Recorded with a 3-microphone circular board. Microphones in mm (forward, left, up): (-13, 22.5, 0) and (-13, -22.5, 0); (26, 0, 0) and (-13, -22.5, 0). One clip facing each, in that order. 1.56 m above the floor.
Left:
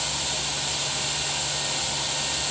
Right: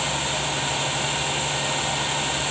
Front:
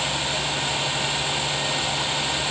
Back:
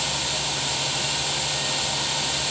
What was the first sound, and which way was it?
Only background noise.